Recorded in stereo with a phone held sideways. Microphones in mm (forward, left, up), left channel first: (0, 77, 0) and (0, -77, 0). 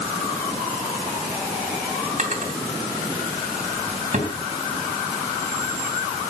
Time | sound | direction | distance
2.2 | a drawer | 50° right (ahead or behind) | 3 m